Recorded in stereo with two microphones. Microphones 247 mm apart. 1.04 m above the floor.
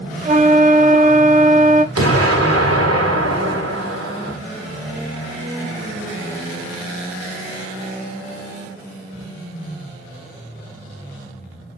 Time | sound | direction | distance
0.2 | a flute | 30° right (ahead or behind) | 0.6 m
1.9 | an explosion | 75° right (ahead or behind) | 1.9 m